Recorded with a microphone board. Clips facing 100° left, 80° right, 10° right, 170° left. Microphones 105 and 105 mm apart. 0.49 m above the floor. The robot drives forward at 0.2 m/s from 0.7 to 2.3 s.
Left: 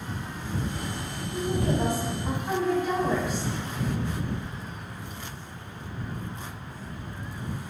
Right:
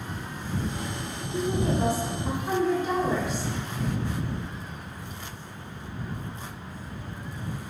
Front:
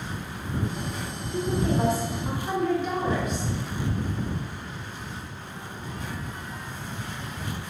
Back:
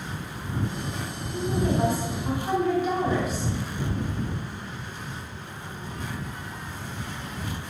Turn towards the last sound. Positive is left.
turn(degrees=-110)